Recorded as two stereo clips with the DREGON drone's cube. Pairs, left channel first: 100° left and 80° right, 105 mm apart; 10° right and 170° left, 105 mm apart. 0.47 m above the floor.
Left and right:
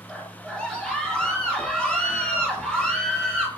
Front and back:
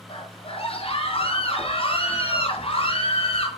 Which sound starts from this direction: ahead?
A scream, at 0.1 s.